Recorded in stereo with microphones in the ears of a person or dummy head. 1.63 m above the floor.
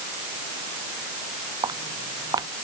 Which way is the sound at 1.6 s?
20° right (ahead or behind).